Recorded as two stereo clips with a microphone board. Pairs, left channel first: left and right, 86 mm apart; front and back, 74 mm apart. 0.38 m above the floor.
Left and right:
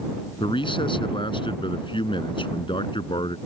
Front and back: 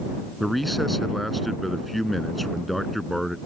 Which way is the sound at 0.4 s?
90° left.